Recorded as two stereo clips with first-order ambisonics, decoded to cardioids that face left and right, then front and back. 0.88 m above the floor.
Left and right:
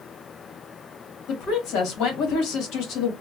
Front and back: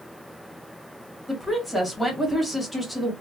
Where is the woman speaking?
85° left, 1.3 m.